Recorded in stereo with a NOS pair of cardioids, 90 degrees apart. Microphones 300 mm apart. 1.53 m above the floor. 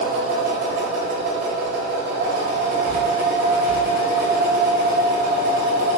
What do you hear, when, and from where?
0.0 s a machine running: 60° right, 1.2 m